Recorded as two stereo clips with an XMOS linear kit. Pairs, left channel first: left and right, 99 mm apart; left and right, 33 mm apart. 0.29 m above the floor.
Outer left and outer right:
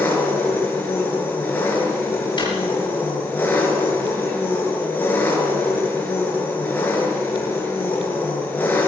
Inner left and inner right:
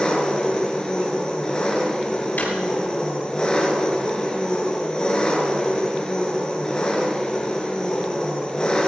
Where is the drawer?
55° left (ahead or behind), 3.5 m.